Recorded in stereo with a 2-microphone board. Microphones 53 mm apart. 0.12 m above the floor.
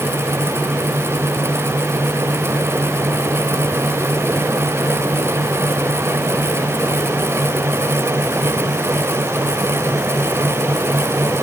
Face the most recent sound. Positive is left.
No sound to turn to.